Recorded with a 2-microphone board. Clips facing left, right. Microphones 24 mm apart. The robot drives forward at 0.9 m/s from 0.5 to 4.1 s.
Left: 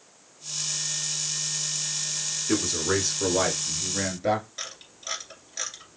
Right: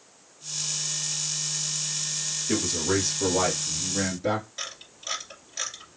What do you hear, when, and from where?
2.5 s a man speaking: 30° left (ahead or behind), 1.6 m; by 4.5 s 15° left (ahead or behind), 2.5 m
4.6 s a camera shutter: 5° left (ahead or behind), 2 m